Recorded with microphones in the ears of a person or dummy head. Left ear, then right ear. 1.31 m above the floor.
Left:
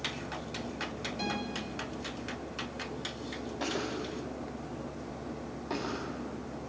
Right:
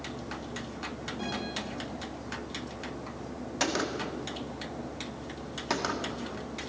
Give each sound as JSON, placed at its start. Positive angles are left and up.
{"t": 1.2, "sound": "a guitar", "side_deg": 35, "distance_m": 6.5}
{"t": 3.6, "sound": "a gunshot", "side_deg": -70, "distance_m": 1.6}